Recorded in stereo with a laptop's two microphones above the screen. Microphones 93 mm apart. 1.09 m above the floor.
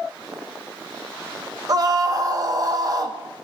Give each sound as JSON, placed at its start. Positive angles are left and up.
{"t": 1.7, "sound": "a scream", "side_deg": -40, "distance_m": 1.0}